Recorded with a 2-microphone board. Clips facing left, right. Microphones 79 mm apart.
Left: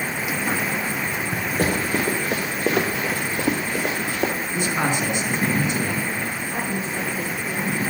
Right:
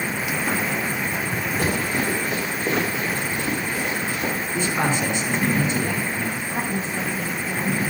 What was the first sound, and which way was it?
Running footsteps, 50° left (ahead or behind).